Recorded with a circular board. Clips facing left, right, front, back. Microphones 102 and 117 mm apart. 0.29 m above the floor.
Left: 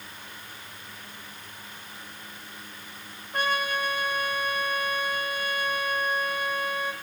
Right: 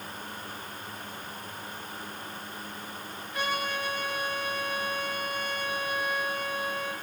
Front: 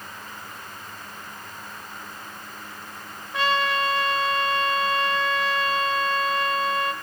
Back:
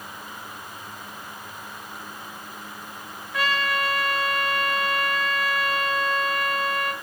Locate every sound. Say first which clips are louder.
3.3 s a trumpet: left 4 dB, front 2 dB; 60° left, 4.5 m